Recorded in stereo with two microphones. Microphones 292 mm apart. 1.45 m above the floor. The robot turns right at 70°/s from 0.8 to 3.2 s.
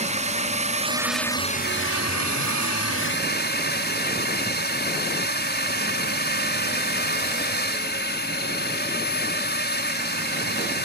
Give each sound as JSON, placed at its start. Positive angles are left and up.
{"t": 0.0, "sound": "a drone", "azimuth_deg": -25}